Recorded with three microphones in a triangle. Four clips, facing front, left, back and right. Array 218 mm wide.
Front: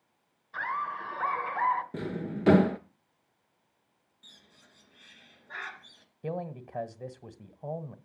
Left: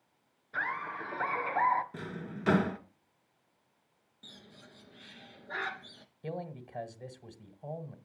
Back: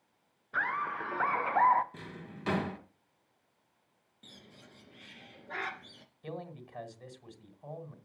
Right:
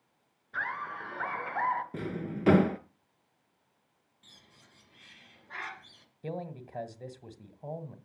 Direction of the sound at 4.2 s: 140° left.